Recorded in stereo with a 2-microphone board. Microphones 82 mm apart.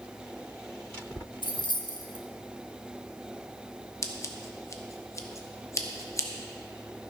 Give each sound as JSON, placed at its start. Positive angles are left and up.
{"t": 1.4, "sound": "keys jangling", "side_deg": 65, "distance_m": 0.9}
{"t": 4.0, "sound": "scissors", "side_deg": 35, "distance_m": 0.9}